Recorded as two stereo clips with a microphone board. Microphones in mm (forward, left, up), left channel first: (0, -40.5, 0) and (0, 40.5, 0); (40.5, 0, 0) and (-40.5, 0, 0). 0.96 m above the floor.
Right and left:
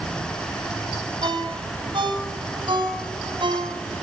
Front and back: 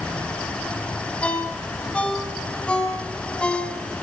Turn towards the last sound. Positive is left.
turn(degrees=80)